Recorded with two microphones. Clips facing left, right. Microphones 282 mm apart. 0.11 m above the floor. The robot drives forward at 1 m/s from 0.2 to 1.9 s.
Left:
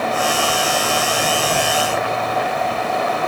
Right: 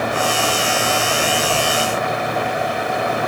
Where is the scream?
I don't hear a scream.